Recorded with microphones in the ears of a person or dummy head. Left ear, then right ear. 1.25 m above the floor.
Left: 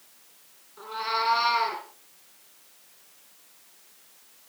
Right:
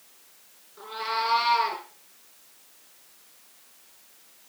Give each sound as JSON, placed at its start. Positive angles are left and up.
{"t": 0.8, "sound": "a cat meowing", "side_deg": -5, "distance_m": 6.0}